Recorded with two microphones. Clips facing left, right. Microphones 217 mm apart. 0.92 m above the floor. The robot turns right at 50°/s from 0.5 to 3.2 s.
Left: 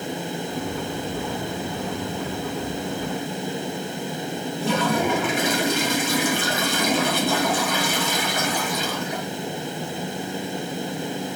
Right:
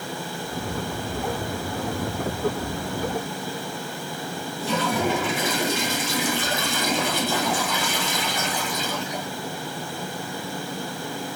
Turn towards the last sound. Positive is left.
turn(degrees=65)  # may be behind; listen again after turning